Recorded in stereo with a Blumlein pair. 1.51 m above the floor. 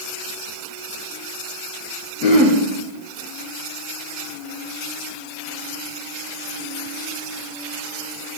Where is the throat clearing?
40° left, 1.7 m.